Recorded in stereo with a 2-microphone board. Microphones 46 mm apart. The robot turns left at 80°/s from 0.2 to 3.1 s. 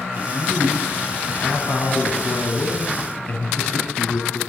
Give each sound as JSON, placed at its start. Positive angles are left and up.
{"t": 0.1, "sound": "a man speaking", "azimuth_deg": -110, "distance_m": 5.5}